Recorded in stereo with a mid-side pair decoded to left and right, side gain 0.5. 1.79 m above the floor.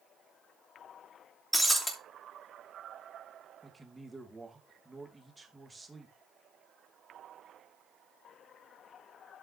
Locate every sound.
1.5 s breaking glass: 5° left, 3 m
3.6 s a man speaking: 15° right, 2.5 m